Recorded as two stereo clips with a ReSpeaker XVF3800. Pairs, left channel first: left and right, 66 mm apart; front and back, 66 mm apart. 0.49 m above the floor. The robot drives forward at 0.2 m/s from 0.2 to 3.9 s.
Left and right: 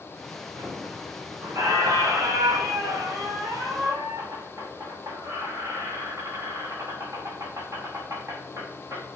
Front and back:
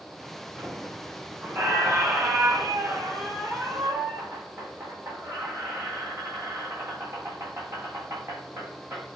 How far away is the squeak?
About 3 m.